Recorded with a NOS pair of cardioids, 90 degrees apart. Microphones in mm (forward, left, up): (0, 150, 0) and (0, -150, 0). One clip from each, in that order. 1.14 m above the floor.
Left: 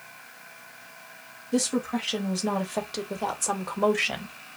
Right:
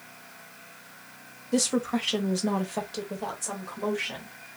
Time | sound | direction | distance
1.5 | a woman speaking | 20° right | 1.2 m